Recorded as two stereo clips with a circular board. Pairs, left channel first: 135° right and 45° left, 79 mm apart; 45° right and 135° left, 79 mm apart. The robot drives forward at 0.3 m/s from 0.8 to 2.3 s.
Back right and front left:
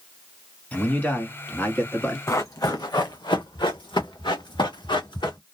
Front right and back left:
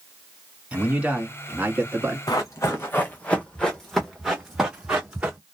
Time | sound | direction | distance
0.7 | a man speaking | 175° right | 1.0 m
2.3 | running footsteps | 85° right | 0.8 m